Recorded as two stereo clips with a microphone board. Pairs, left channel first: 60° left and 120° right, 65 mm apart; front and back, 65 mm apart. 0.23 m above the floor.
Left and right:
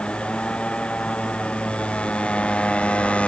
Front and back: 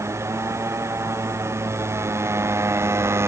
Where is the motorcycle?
135° left; by 3.3 s 130° left.